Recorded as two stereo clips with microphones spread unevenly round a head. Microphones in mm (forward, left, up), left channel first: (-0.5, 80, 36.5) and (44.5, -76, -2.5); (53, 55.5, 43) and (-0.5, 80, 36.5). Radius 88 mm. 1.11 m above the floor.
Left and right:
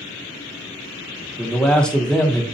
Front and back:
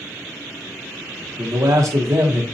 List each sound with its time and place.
1.4 s a man speaking: 165° right, 0.6 m